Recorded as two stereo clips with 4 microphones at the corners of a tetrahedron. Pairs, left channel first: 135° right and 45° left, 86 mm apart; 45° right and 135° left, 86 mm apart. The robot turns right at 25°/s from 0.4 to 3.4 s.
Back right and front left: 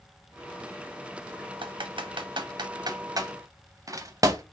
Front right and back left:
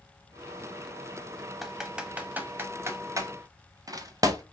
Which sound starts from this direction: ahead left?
Typing on a keyboard, at 1.6 s.